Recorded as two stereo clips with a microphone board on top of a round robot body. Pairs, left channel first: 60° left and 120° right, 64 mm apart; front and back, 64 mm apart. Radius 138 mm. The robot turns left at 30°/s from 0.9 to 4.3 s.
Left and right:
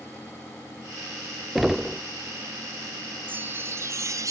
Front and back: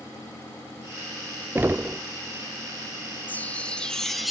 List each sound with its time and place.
1.6 s knocking: 155° left; by 2.0 s 145° left
3.3 s a chime: 60° right; by 4.3 s 90° right